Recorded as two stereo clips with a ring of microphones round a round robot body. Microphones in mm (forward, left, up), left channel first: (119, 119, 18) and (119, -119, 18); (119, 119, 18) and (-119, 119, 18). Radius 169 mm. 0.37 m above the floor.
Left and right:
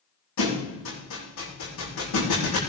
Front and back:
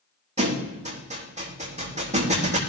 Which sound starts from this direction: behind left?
A thud, at 0.4 s.